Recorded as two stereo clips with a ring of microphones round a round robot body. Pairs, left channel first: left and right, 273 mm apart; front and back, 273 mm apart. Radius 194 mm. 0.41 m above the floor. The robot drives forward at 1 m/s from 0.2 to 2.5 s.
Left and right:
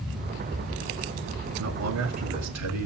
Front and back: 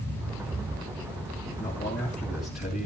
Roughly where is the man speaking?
Right.